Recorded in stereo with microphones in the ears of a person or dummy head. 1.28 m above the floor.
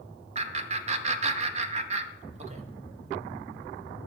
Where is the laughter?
30° right (ahead or behind), 0.7 m.